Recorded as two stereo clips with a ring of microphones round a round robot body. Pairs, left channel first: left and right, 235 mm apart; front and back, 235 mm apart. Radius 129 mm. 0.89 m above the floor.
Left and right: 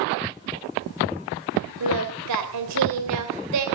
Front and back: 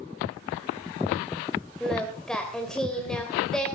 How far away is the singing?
About 3 m.